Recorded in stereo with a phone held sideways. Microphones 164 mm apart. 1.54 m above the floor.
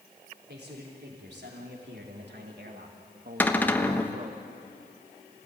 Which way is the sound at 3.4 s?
10° left (ahead or behind).